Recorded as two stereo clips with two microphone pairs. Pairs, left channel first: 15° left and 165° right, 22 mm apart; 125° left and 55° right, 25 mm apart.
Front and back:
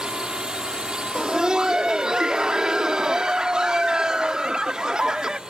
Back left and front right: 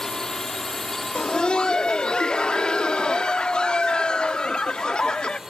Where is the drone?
175° right; by 5.5 s 125° right.